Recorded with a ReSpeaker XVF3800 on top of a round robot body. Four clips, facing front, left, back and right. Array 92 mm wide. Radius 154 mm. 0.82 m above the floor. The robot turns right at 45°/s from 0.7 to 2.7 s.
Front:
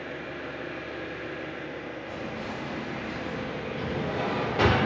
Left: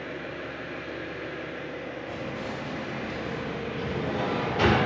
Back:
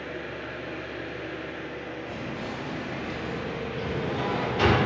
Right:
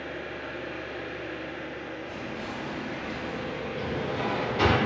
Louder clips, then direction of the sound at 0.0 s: Even, back 1 dB; 25° right.